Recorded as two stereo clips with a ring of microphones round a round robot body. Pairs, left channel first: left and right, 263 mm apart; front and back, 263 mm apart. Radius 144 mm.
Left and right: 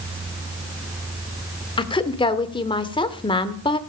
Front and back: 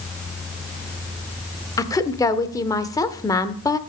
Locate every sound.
1.8 s a woman speaking: 55° left, 0.8 m